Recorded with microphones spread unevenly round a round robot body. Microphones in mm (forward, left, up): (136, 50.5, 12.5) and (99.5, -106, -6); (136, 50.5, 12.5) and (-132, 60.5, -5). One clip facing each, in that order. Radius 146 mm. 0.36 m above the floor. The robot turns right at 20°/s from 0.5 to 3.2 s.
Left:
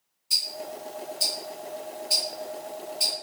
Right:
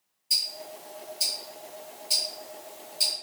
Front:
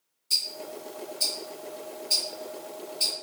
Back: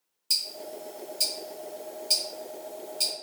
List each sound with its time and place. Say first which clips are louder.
0.3 s ticking: left 6 dB, front 1 dB; 160° left, 1.3 m; by 3.1 s 145° right, 1.3 m